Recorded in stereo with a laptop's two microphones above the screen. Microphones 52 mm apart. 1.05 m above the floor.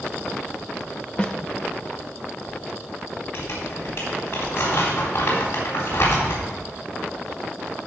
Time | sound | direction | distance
1.2 | a snare drum | 15° left (ahead or behind) | 0.5 m
3.3 | crumpling | 45° left (ahead or behind) | 3.5 m